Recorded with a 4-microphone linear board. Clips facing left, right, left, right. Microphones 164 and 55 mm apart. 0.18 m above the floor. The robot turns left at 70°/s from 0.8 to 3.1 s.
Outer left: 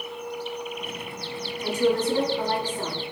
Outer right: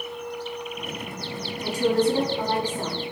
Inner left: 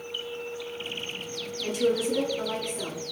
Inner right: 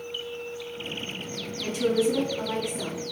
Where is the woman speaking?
90° right, 1.4 m; by 3.0 s 170° left, 1.4 m.